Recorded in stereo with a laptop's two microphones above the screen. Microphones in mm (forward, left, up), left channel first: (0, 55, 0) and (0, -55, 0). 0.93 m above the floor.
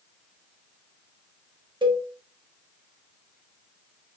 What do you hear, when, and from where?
1.8 s a cowbell: 45° right (ahead or behind), 1.2 m